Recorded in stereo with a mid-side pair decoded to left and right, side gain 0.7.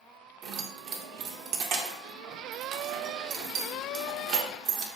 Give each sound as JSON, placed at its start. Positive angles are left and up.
{"t": 0.4, "sound": "keys jangling", "azimuth_deg": -60, "distance_m": 0.6}